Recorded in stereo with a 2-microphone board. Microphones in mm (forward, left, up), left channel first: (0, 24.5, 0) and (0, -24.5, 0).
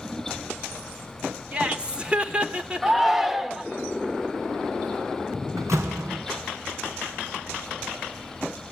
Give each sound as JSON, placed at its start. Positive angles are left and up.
{"t": 1.5, "sound": "laughter", "side_deg": -25, "distance_m": 1.4}
{"t": 2.8, "sound": "a shout", "side_deg": -5, "distance_m": 1.1}
{"t": 5.6, "sound": "a door slam", "side_deg": -75, "distance_m": 3.0}